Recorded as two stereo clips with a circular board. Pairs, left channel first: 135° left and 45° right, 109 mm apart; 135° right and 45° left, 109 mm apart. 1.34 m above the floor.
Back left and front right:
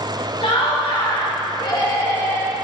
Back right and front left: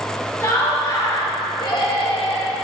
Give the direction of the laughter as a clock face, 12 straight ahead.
7 o'clock.